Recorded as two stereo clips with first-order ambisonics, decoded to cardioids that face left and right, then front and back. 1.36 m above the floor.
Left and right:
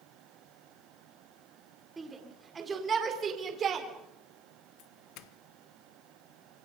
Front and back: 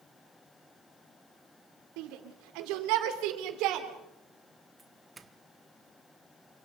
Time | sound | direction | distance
2.0 | a shout | 170° right | 3.5 m
4.8 | a doorbell | 105° left | 1.3 m